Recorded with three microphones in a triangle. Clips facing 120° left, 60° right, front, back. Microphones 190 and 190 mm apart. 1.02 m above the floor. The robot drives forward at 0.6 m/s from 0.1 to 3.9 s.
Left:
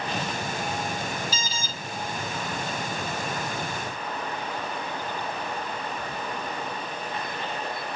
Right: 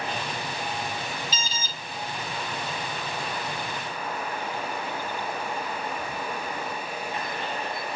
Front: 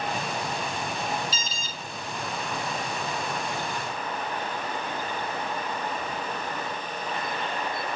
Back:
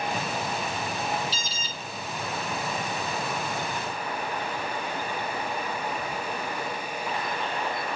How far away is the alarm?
About 1.8 m.